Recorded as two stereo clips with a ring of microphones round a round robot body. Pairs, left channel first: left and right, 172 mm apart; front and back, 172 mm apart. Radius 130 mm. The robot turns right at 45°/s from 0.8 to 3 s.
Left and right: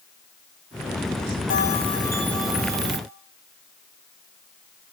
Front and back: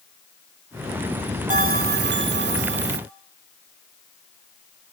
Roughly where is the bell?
Behind left.